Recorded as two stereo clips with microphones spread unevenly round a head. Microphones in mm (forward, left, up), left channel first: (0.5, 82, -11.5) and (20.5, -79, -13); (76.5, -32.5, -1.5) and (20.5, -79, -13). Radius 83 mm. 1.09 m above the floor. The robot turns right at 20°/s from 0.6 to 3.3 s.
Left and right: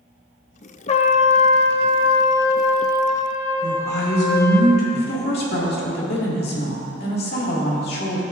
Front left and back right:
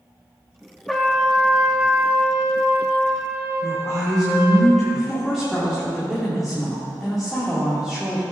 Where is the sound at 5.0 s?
130° left, 2 m.